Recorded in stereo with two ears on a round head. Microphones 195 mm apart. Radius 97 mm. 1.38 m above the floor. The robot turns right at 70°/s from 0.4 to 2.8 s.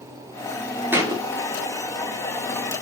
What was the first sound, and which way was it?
A thud, 10° right (ahead or behind).